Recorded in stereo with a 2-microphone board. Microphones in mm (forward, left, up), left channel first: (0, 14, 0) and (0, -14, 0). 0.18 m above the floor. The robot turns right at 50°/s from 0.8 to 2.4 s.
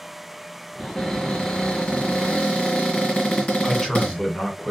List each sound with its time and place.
0.8 s a cupboard door: 15° left, 2 m; by 4.2 s 95° left, 2 m
3.6 s a man speaking: 15° left (ahead or behind), 2.0 m